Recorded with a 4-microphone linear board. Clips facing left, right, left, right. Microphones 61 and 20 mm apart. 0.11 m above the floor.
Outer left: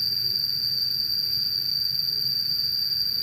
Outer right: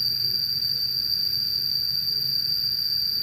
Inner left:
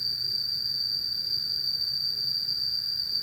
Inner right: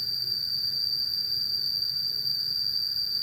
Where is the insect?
10° left (ahead or behind), 1.6 m.